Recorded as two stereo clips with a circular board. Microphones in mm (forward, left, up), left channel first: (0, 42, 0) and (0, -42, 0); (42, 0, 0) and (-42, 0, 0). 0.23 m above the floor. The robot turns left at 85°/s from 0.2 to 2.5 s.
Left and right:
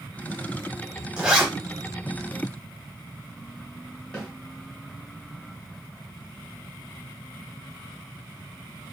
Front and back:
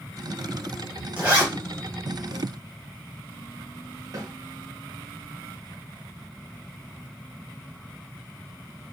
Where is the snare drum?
170° left, 1.4 m.